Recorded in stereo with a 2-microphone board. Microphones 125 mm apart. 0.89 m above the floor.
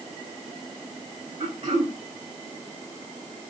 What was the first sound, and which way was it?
Throat clearing, 75° right (ahead or behind).